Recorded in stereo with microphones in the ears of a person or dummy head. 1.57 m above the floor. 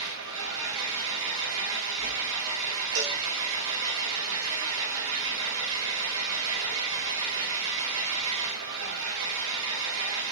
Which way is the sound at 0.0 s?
70° right (ahead or behind).